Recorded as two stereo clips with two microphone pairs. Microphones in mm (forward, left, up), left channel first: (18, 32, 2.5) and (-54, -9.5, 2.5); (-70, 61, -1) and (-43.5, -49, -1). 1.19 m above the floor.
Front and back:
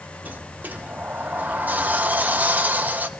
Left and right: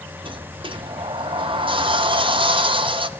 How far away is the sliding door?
About 0.6 m.